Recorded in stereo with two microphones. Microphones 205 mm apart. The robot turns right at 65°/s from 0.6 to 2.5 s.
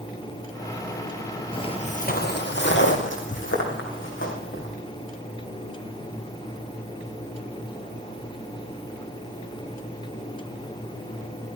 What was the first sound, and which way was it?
Footsteps, 25° left (ahead or behind).